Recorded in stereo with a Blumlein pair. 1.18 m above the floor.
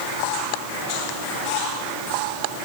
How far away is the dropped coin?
I don't hear a dropped coin.